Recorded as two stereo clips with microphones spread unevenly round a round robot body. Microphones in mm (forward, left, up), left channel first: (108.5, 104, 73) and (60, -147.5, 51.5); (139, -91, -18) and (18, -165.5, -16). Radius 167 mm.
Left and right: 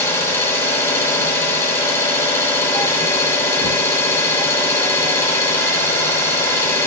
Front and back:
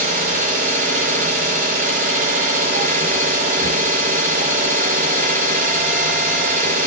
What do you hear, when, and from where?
0.0 s an engine running: 160° left, 0.8 m